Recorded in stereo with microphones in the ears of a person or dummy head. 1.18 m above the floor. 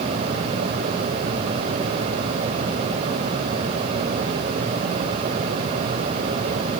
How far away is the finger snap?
I don't hear a finger snap.